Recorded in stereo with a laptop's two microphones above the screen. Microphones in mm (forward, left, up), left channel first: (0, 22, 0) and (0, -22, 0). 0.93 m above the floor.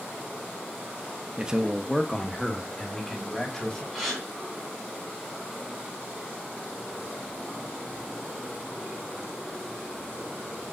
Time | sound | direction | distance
1.4 | a man speaking | 20° right (ahead or behind) | 0.6 m
3.9 | a gasp | centre (ahead or behind) | 2 m